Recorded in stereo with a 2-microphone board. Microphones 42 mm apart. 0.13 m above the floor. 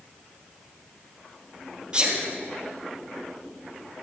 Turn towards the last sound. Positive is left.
turn(degrees=-15)  # may be behind; listen again after turning